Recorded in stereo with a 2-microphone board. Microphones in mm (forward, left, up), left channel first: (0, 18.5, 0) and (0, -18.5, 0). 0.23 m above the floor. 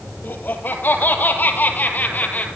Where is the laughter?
60° left (ahead or behind), 5 m; by 2.5 s 45° left (ahead or behind), 4.5 m.